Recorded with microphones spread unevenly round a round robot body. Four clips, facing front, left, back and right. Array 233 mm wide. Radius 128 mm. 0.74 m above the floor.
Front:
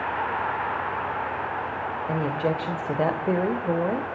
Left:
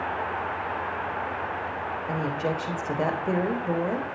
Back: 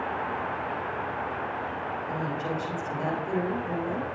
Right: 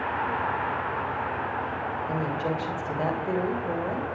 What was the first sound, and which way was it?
A woman speaking, 20° left.